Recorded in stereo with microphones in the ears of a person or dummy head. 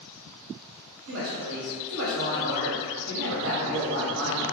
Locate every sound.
1.1 s a woman speaking: 75° right (ahead or behind), 0.8 m